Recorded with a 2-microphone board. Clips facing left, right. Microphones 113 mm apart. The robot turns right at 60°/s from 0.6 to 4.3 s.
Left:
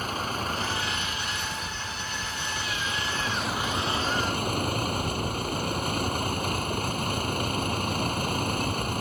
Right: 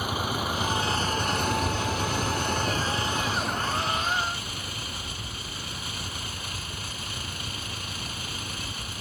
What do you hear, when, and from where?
0.0 s a vehicle: 170° right; by 9.0 s 50° left